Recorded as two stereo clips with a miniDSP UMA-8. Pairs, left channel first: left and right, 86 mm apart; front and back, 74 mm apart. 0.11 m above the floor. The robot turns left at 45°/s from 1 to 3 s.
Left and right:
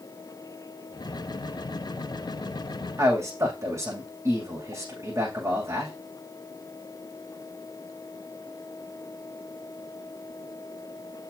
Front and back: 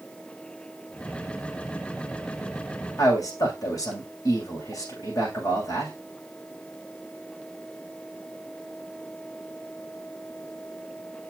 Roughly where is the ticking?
No ticking in this recording.